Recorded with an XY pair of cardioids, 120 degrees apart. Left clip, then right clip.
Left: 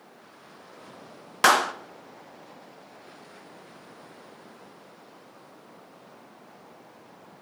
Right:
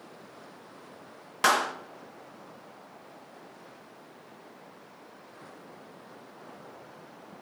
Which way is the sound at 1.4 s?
30° left.